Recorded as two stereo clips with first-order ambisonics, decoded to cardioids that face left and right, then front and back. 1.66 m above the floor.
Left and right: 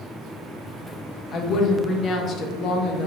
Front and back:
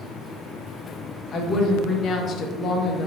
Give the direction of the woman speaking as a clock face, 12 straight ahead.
10 o'clock.